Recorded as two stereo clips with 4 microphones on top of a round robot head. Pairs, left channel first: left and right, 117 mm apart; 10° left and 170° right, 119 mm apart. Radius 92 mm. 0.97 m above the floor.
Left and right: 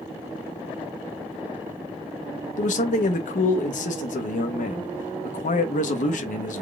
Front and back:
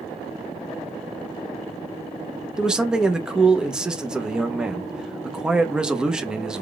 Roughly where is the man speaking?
Left.